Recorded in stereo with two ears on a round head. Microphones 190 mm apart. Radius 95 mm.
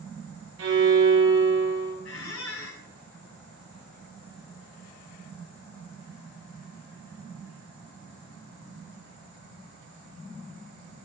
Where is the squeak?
65° left (ahead or behind), 1.8 m.